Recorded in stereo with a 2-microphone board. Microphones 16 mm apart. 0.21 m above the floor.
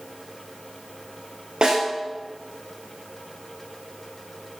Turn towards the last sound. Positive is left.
turn(degrees=-70)  # may be behind; listen again after turning